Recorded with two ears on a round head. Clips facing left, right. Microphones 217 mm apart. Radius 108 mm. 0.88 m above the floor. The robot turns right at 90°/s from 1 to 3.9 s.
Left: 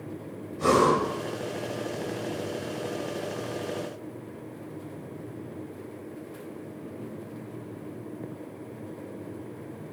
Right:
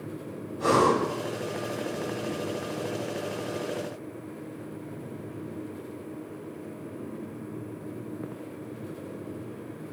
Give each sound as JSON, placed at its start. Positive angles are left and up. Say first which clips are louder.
{"t": 0.6, "sound": "breathing", "louder": "left 1 dB", "side_deg": 40, "distance_m": 4.5}